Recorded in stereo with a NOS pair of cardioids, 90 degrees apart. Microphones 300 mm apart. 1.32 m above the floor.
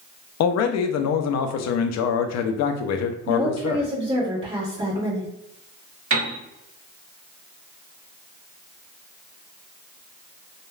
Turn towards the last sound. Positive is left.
turn(degrees=-45)